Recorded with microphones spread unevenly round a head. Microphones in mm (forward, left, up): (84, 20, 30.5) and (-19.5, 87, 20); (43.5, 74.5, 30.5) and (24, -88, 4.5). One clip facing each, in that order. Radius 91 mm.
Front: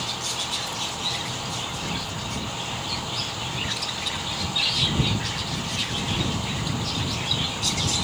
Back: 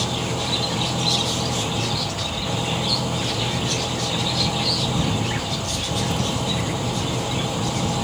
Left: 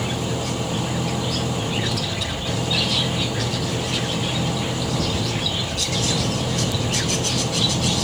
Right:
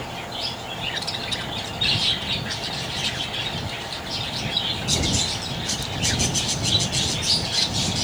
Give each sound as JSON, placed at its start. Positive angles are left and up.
{"t": 0.0, "sound": "an engine running", "azimuth_deg": 115}